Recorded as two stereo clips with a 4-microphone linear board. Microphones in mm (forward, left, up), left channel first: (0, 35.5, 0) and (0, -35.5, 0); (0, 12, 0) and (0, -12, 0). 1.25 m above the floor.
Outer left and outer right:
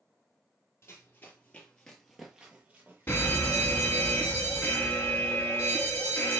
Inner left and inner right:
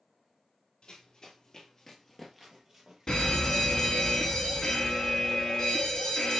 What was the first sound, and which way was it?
Running footsteps, 35° left (ahead or behind).